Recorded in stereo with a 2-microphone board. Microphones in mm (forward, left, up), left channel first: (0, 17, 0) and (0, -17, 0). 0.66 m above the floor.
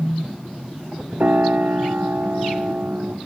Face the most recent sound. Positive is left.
turn(degrees=-65)  # may be behind; listen again after turning